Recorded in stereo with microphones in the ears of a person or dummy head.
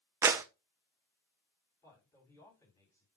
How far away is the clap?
About 0.5 m.